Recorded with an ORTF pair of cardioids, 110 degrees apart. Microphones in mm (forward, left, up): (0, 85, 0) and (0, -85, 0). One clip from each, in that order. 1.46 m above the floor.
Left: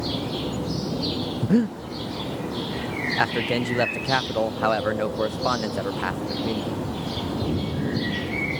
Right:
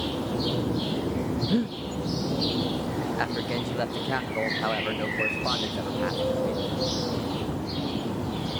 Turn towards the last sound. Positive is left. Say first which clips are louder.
# left 8 dB
turn(degrees=30)